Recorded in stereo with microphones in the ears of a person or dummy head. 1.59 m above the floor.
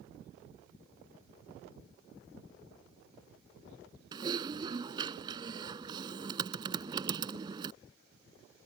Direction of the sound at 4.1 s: 25° right (ahead or behind).